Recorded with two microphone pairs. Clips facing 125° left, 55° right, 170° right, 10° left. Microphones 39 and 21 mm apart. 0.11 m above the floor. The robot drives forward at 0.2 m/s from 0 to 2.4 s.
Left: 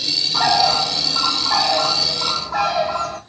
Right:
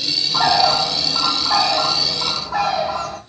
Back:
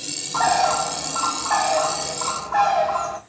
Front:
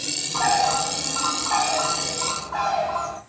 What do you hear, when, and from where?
0.3 s a bird: 125° right, 0.6 m; by 3.2 s 145° right, 0.9 m